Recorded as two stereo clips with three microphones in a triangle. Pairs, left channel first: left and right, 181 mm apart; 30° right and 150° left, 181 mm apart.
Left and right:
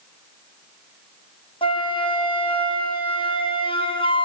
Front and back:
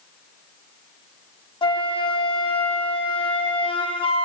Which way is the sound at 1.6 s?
30° left.